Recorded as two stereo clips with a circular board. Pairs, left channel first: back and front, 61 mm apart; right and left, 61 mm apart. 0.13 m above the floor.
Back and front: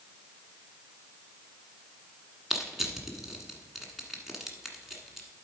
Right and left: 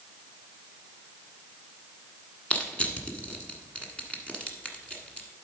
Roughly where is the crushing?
Right.